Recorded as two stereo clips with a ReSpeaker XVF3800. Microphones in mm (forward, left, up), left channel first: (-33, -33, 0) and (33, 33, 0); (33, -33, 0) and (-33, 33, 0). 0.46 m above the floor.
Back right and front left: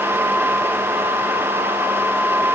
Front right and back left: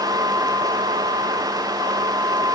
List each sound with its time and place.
Only background noise.